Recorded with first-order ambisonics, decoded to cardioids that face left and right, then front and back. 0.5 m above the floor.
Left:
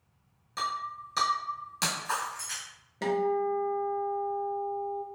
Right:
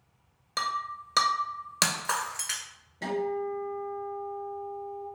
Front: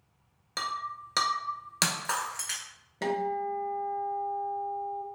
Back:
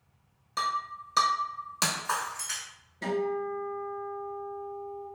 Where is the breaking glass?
50° right, 0.6 m.